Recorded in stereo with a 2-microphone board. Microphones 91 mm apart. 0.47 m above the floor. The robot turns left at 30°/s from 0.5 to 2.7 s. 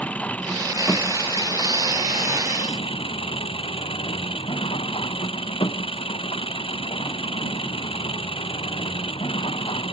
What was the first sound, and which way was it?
An engine running, 165° left.